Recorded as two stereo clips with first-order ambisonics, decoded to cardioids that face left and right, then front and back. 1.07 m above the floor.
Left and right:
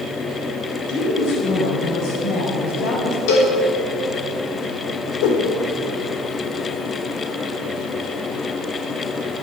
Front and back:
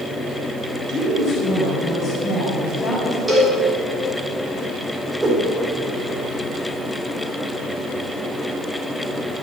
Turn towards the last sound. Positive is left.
turn(degrees=100)